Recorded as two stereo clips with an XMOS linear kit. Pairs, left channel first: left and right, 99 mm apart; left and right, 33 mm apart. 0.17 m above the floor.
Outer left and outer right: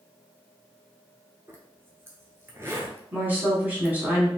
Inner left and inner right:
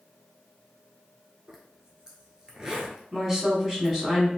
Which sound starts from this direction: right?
A zipper, at 1.5 s.